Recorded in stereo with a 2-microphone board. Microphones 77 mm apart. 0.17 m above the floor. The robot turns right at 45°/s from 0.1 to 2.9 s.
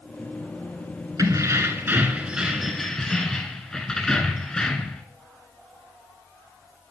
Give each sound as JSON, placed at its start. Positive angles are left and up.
{"t": 1.2, "sound": "keys jangling", "azimuth_deg": -65, "distance_m": 1.1}